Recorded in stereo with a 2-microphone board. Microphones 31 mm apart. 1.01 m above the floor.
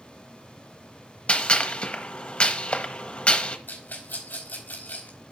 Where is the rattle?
75° left (ahead or behind), 3.5 m.